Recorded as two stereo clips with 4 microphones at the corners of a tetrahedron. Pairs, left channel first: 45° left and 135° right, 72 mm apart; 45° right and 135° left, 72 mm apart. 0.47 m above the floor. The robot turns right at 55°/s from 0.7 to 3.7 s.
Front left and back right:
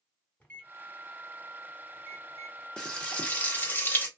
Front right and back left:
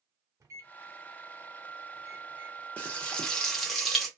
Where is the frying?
15° right, 0.9 m; by 4.1 s 35° left, 0.9 m.